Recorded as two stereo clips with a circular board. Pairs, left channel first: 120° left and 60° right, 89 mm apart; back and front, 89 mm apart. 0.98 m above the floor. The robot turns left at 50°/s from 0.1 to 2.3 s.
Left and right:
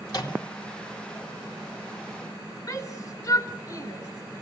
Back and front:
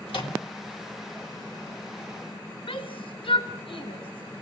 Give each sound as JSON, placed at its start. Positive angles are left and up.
{"t": 0.1, "sound": "a microwave", "azimuth_deg": 170, "distance_m": 3.0}
{"t": 2.7, "sound": "a shout", "azimuth_deg": 165, "distance_m": 4.0}